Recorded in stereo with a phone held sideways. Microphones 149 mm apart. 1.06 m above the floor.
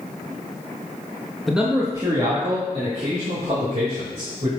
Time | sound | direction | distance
1.5 | a man speaking | centre (ahead or behind) | 1.1 m